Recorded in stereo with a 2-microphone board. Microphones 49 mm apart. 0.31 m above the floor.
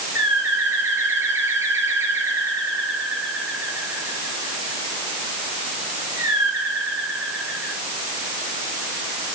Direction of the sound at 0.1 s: 65° right (ahead or behind).